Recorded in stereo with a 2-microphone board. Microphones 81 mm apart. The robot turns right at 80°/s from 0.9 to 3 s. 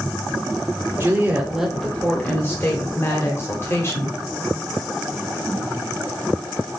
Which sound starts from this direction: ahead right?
A woman speaking, at 1.0 s.